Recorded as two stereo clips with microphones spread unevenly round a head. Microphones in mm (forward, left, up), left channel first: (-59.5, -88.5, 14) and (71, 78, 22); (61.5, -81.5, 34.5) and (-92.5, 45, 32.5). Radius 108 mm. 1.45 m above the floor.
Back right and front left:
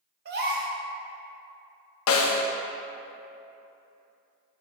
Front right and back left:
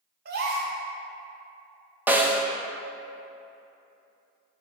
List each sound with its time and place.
0.2 s a gasp: 100° left, 1.0 m
2.1 s a snare drum: 140° right, 0.8 m